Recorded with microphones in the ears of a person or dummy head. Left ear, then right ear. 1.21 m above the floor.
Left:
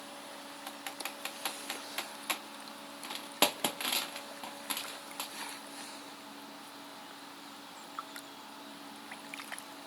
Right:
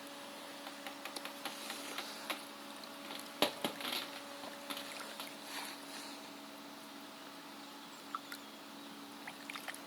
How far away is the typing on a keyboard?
About 0.9 m.